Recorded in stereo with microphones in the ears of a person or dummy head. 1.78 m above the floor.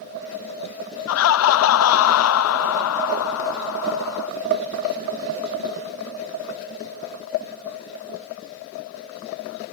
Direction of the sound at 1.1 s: 85° left.